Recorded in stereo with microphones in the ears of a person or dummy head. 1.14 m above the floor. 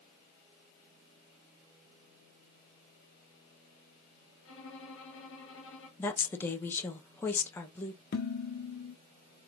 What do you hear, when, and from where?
4.5 s a violin: 65° left (ahead or behind), 1.6 m
6.0 s a woman speaking: 10° left (ahead or behind), 1.1 m
8.1 s dishes clattering: 55° left (ahead or behind), 1.0 m